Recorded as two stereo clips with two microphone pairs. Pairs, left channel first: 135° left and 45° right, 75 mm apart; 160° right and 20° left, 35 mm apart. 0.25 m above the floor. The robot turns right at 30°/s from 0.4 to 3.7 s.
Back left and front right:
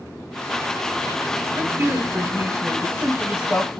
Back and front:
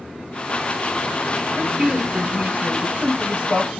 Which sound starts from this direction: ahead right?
A woman speaking, at 1.6 s.